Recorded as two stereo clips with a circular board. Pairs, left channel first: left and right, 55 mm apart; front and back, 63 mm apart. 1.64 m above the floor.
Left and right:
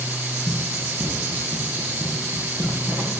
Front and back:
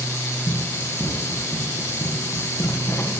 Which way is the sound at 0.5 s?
55° right.